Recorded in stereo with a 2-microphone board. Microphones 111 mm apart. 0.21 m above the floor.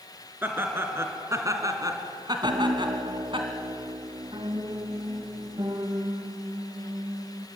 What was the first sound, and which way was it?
Laughter, 20° right (ahead or behind).